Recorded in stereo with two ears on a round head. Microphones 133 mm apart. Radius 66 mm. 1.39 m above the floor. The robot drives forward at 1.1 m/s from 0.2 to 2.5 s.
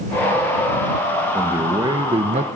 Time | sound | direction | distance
1.3 | a man speaking | 20° right (ahead or behind) | 1.8 m